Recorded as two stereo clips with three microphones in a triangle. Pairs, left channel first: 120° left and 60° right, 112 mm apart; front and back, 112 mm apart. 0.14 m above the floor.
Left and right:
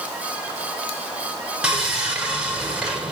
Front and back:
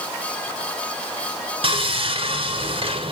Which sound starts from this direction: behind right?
Sawing, at 1.6 s.